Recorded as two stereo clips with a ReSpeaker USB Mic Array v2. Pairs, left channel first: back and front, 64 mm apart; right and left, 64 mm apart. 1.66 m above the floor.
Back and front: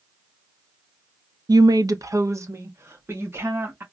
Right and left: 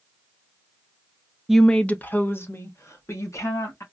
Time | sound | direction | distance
1.5 | a woman speaking | 5° left | 0.5 m